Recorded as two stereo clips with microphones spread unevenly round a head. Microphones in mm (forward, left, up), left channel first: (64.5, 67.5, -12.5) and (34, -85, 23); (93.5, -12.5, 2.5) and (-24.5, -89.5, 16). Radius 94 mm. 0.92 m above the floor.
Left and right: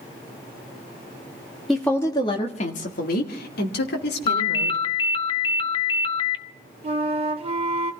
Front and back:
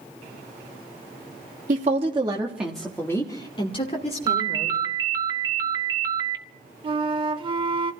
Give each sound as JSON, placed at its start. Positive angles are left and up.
{"t": 1.7, "sound": "a woman speaking", "azimuth_deg": 165, "distance_m": 1.6}
{"t": 4.3, "sound": "a ringtone", "azimuth_deg": 140, "distance_m": 0.6}
{"t": 6.8, "sound": "a flute", "azimuth_deg": -115, "distance_m": 0.8}